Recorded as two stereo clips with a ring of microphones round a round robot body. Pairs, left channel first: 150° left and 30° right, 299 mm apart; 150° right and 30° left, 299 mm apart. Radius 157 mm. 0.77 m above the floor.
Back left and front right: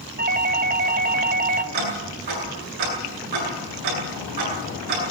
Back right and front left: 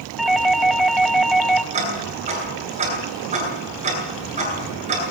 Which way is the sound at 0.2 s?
60° right.